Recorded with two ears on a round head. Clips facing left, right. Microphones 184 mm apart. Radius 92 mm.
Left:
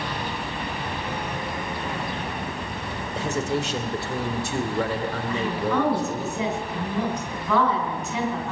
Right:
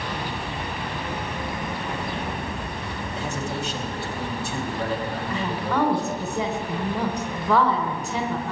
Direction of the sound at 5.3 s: 30° right (ahead or behind).